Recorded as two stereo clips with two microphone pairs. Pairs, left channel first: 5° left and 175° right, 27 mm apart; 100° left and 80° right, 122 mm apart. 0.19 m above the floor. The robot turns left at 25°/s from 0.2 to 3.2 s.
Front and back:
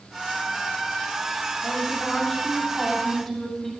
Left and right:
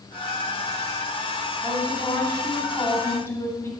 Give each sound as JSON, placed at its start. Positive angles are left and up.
{"t": 1.6, "sound": "a woman speaking", "azimuth_deg": 130, "distance_m": 1.0}